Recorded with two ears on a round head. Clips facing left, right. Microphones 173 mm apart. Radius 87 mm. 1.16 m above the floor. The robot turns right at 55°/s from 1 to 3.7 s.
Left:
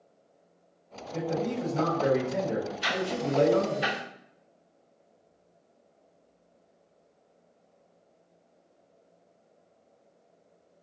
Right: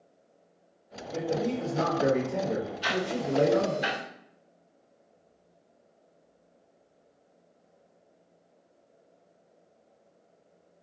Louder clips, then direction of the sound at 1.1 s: Right 1 dB; 45° right.